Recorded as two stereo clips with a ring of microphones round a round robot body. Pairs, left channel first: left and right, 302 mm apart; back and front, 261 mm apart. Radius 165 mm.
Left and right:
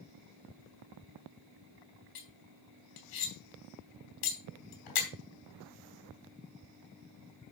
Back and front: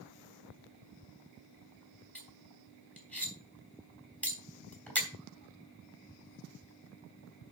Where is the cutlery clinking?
95° left, 3.5 m.